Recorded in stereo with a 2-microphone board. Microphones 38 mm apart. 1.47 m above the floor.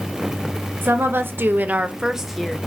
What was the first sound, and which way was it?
A woman speaking, 80° right.